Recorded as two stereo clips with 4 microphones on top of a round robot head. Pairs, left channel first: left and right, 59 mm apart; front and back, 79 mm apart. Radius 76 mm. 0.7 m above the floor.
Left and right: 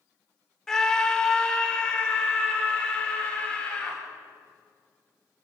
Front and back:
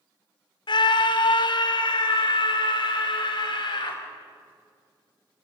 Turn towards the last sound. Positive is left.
turn(degrees=20)